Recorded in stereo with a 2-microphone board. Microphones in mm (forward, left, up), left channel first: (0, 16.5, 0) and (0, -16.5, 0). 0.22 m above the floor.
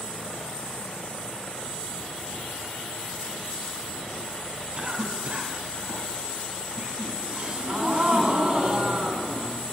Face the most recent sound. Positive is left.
turn(degrees=-25)  # may be behind; listen again after turning